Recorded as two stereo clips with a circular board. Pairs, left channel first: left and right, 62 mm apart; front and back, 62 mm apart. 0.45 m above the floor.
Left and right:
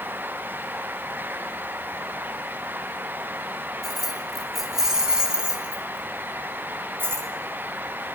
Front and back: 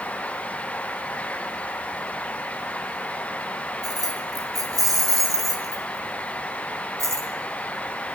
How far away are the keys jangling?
About 3.5 m.